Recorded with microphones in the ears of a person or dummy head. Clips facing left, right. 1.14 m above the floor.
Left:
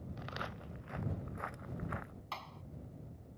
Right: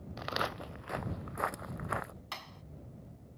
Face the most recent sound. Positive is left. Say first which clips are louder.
# even
turn(degrees=-15)  # may be behind; listen again after turning